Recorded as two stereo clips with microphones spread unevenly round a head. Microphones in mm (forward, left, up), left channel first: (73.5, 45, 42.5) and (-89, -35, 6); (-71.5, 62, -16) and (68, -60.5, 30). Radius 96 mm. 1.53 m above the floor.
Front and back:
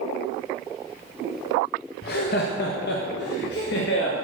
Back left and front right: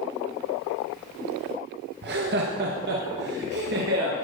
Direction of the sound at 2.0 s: 10° right.